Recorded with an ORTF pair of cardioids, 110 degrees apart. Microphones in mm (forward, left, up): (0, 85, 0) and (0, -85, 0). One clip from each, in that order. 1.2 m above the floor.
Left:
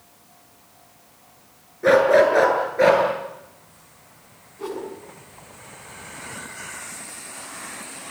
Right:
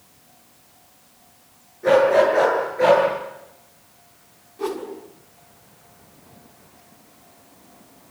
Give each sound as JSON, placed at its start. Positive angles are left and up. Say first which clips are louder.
{"t": 1.8, "sound": "a dog barking", "louder": "even", "azimuth_deg": 35, "distance_m": 8.5}
{"t": 4.6, "sound": "a whoosh", "louder": "right 3 dB", "azimuth_deg": -30, "distance_m": 6.5}